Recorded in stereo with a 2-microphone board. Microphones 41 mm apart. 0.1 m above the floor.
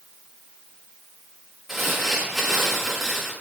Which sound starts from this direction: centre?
Crumpling, at 1.7 s.